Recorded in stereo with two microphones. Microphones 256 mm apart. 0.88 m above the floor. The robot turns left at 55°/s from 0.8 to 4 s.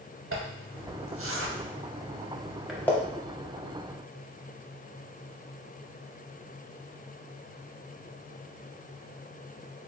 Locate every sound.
0.3 s a zipper: 55° right (ahead or behind), 0.6 m; by 2.9 s 10° left (ahead or behind), 0.6 m